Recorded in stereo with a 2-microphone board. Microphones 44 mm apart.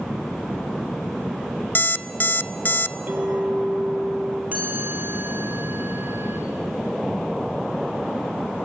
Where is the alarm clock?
50° left (ahead or behind), 0.6 m.